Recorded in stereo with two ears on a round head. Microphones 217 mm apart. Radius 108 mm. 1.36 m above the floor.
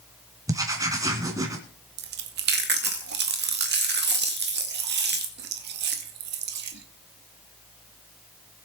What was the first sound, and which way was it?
Writing, 15° right (ahead or behind).